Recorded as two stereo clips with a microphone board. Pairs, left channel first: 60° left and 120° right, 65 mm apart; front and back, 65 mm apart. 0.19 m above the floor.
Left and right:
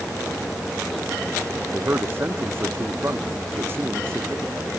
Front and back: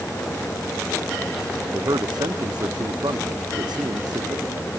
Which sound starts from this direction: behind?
A man speaking, at 1.7 s.